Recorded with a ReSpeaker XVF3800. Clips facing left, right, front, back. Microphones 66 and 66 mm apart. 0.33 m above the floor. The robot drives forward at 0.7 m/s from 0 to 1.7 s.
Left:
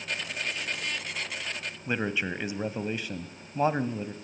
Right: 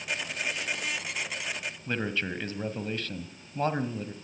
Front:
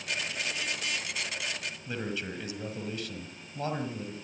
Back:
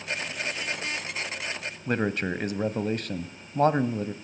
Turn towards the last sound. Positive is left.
turn(degrees=160)